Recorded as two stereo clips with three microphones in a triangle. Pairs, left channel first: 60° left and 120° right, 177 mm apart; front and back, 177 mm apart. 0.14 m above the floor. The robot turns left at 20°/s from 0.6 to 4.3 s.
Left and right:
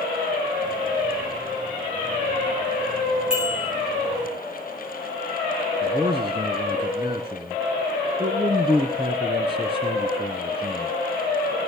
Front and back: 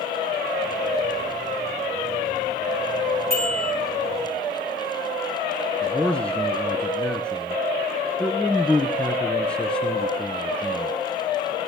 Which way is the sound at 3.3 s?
35° right.